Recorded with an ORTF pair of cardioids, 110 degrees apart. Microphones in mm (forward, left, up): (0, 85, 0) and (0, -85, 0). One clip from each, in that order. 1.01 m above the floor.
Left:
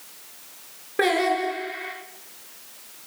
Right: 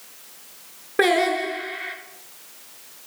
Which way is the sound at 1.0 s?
20° right.